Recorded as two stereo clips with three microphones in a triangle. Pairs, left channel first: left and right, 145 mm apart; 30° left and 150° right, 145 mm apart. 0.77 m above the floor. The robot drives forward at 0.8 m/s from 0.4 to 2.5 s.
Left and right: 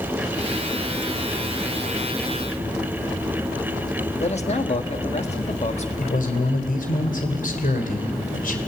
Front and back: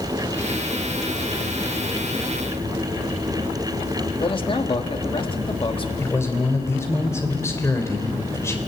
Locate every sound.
4.2 s a man speaking: 70° left, 1.6 m
6.0 s a man speaking: 100° left, 3 m